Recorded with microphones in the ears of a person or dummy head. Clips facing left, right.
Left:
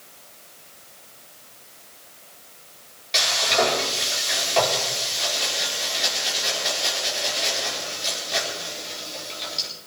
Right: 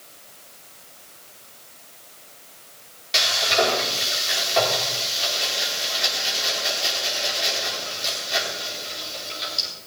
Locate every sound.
3.1 s frying: 5° right (ahead or behind), 4.5 m